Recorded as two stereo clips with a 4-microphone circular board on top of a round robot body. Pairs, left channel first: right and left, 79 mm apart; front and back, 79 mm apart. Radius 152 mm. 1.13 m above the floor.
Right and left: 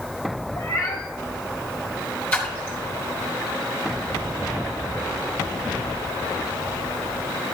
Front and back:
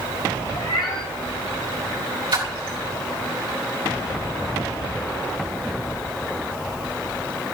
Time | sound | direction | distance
0.6 | a cat meowing | 35° right | 0.5 m
2.3 | a splash | 160° right | 3 m